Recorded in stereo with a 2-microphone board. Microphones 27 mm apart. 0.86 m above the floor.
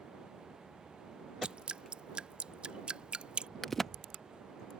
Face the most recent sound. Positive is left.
turn(degrees=10)  # may be behind; listen again after turning